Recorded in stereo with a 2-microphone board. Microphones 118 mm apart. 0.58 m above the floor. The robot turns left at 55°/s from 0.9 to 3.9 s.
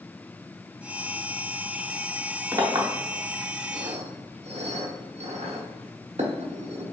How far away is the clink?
About 1.1 m.